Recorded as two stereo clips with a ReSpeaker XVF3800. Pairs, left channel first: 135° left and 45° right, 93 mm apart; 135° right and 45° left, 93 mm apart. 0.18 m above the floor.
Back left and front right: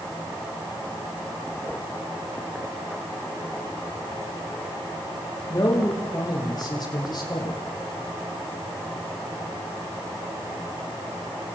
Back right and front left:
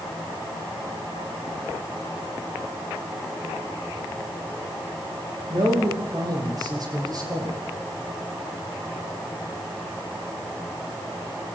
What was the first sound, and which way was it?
A man speaking, 85° left.